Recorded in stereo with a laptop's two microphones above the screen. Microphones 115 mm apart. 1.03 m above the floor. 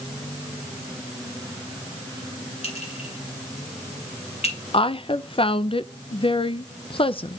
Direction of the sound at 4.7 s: 50° left (ahead or behind).